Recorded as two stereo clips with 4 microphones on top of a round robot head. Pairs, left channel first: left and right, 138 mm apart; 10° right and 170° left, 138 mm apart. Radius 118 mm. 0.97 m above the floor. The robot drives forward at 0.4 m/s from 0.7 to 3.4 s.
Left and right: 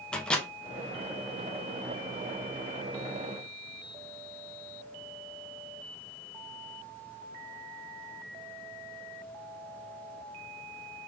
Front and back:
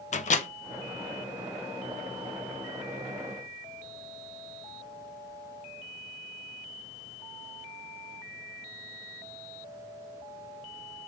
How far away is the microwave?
About 0.7 m.